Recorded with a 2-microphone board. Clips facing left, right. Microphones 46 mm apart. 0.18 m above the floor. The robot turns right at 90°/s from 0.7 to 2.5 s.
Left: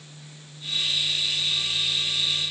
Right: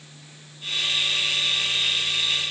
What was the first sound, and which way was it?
Only background noise.